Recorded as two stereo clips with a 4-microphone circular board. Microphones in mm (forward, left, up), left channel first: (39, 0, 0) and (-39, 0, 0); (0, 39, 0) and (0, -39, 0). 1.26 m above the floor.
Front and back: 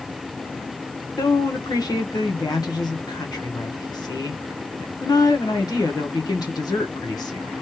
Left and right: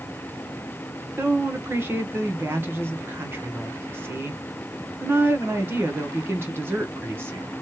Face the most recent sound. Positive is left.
turn(degrees=-30)